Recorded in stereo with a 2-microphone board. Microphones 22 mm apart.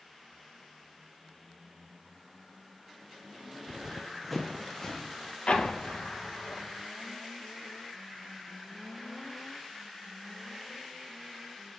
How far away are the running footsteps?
About 0.6 m.